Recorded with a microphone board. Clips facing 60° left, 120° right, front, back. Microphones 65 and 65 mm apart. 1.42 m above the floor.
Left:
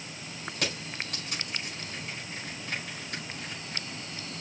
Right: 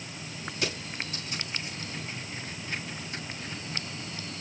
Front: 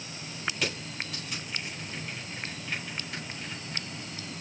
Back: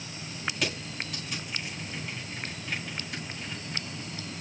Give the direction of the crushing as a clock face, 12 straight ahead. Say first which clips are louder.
Right 1 dB, back 1 dB; 9 o'clock.